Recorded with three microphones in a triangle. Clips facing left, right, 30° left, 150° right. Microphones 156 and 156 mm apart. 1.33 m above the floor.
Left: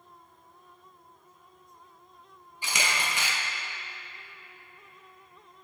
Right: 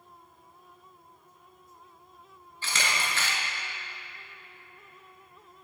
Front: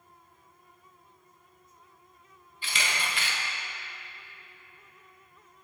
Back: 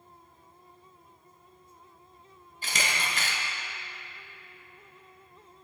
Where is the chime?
I don't hear a chime.